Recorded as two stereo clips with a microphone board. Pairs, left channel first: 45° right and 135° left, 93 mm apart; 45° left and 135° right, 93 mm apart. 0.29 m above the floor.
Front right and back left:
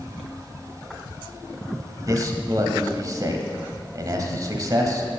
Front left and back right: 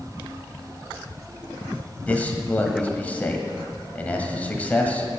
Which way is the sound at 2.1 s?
110° left.